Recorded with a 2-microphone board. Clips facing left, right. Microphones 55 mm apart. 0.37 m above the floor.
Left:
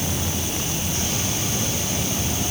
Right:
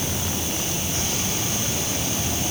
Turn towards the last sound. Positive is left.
No sound to turn to.